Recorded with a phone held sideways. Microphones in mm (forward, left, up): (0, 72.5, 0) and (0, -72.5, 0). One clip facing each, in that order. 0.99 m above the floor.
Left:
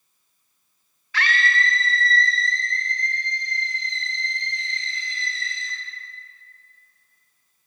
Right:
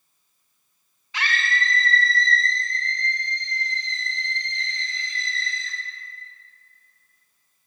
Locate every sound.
1.1 s a scream: 20° right (ahead or behind), 0.6 m; by 5.7 s 20° left (ahead or behind), 5 m